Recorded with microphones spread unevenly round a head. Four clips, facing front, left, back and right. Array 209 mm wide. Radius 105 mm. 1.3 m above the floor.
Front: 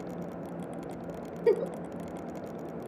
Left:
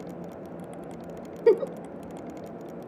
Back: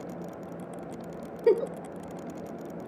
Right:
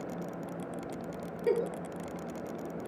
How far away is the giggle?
About 0.6 m.